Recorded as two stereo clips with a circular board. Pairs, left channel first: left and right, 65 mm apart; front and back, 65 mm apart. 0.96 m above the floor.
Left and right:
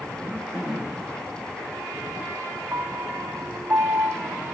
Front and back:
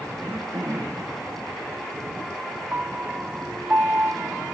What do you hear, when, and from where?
0.2 s throat clearing: 170° right, 1.6 m
2.7 s a piano: 120° right, 0.5 m